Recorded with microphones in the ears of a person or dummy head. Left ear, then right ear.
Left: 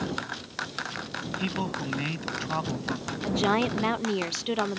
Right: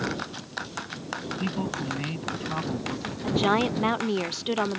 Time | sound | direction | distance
1.4 | a man speaking | 30° left (ahead or behind) | ?
3.2 | a woman speaking | centre (ahead or behind) | ?